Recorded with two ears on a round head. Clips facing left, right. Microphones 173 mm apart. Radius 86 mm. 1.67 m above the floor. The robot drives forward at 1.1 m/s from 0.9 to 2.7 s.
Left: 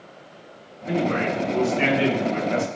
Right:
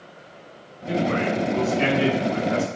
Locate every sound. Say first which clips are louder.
0.9 s a man speaking: even; 20° left (ahead or behind), 6.5 m; by 2.7 s 25° left (ahead or behind), 5 m